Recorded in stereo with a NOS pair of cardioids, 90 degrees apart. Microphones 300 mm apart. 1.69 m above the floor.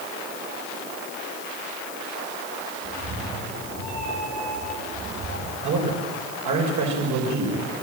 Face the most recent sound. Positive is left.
turn(degrees=-70)